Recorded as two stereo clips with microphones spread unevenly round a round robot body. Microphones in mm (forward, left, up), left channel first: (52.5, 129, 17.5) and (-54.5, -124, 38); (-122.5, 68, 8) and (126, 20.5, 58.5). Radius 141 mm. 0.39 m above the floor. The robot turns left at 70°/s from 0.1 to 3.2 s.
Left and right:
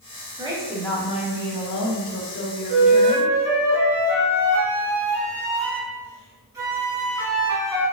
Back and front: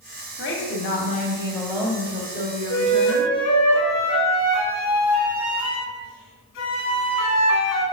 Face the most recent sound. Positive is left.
turn(degrees=170)